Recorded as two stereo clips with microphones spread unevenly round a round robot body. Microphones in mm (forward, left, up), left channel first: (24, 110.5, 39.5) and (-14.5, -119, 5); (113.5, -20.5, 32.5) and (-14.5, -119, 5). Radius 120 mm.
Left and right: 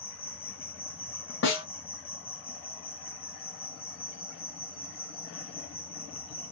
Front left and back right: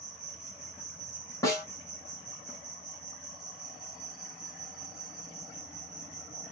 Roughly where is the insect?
Behind left.